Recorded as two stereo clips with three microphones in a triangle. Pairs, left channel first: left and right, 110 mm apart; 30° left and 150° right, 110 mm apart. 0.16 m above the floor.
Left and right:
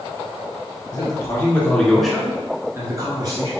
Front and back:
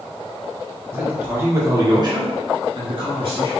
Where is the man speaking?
135° left, 1.9 m; by 3.5 s 125° right, 2 m.